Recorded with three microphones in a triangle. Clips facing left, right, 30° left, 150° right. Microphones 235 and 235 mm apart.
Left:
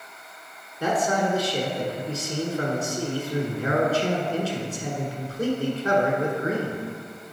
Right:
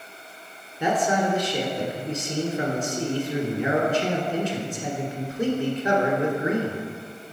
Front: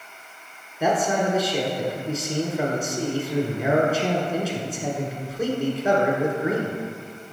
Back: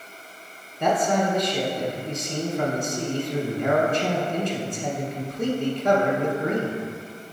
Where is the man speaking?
45° right, 1.2 m.